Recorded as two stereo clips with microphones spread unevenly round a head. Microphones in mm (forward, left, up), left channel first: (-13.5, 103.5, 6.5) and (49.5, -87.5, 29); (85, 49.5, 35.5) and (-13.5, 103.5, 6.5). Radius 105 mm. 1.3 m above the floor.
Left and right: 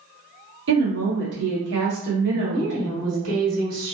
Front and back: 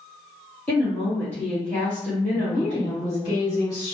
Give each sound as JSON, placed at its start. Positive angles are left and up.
{"t": 0.7, "sound": "a woman speaking", "azimuth_deg": -110, "distance_m": 1.5}
{"t": 2.3, "sound": "a woman speaking", "azimuth_deg": -100, "distance_m": 1.8}